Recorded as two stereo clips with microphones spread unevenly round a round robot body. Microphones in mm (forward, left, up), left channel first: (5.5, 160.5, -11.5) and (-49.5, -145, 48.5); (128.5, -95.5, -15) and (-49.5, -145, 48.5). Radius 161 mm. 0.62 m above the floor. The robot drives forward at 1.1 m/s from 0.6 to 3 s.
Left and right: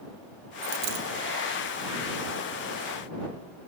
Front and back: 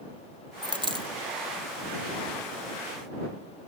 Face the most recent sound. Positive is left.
turn(degrees=-130)